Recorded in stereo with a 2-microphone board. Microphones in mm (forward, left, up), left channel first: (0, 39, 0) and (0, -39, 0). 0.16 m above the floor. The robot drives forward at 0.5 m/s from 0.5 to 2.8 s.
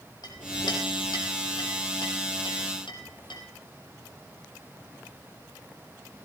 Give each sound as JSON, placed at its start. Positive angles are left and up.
{"t": 0.2, "sound": "a clink", "side_deg": 60, "distance_m": 3.0}